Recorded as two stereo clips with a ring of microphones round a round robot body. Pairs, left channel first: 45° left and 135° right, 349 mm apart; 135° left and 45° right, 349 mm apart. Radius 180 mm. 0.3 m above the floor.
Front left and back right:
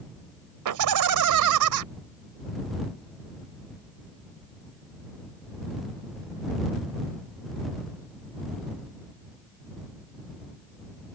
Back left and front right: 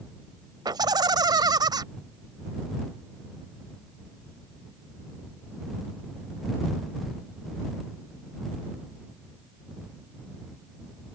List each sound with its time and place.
0.7 s laughter: 120° right